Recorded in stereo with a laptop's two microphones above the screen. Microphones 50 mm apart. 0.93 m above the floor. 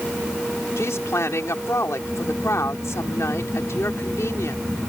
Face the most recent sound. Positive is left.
turn(degrees=65)  # may be behind; listen again after turning